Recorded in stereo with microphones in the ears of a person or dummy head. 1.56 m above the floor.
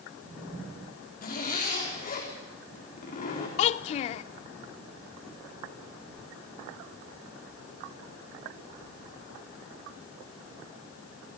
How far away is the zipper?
About 4 m.